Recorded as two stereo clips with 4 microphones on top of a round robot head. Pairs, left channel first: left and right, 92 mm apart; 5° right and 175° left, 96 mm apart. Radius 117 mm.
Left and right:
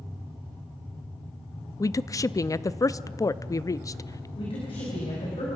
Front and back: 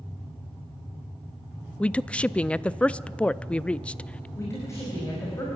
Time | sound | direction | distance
1.8 | a woman speaking | 65° left | 0.6 m
4.4 | a woman speaking | 55° left | 5 m